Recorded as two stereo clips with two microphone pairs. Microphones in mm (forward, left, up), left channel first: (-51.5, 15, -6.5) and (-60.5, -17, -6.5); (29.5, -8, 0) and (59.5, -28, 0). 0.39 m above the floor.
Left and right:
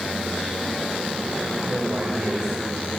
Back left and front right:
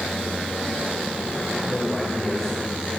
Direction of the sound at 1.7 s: 145° right.